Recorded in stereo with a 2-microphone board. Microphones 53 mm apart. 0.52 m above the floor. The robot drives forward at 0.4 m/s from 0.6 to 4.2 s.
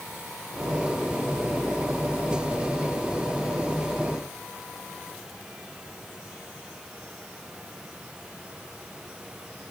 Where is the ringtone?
No ringtone in this recording.